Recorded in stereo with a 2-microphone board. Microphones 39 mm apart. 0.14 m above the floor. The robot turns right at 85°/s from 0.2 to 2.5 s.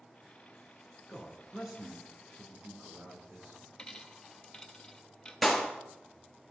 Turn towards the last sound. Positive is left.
turn(degrees=0)  # may be behind; listen again after turning